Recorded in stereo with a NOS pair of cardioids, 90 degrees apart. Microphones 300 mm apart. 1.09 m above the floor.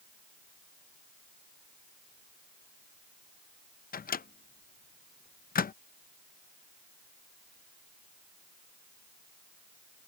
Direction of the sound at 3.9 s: 30° left.